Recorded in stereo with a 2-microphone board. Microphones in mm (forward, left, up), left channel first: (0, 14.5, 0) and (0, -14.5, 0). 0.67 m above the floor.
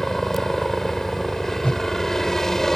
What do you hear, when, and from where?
0.0 s a helicopter: 15° left (ahead or behind)
1.6 s a whoosh: 45° left (ahead or behind)